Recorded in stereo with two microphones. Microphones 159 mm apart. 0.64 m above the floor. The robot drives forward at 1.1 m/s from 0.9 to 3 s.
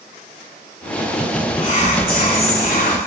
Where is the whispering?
45° left (ahead or behind), 3 m; by 3.0 s 65° left (ahead or behind), 2 m.